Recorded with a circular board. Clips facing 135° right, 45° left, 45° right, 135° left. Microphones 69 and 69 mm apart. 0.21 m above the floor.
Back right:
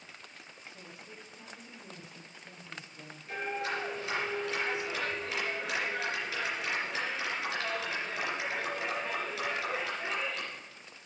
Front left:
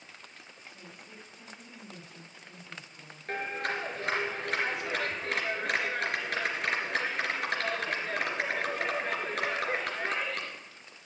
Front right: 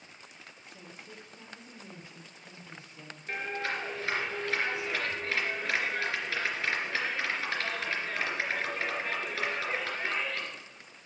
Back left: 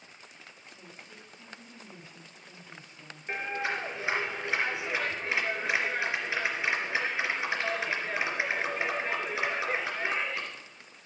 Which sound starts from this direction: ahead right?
A woman speaking, at 0.6 s.